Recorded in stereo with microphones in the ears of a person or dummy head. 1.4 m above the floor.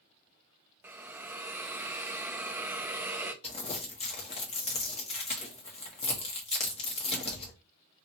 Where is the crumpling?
35° left (ahead or behind), 0.9 m.